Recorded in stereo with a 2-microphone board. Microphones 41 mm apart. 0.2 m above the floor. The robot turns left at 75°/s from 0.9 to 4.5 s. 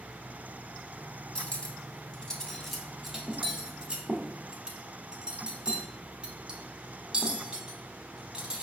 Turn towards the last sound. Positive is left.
turn(degrees=-20)  # may be behind; listen again after turning